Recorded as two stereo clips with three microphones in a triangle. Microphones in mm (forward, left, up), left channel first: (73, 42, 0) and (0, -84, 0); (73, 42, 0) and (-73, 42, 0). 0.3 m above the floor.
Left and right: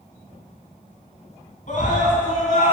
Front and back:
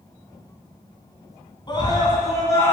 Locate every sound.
1.7 s a scream: 55° left, 3 m; by 2.7 s 70° left, 2.5 m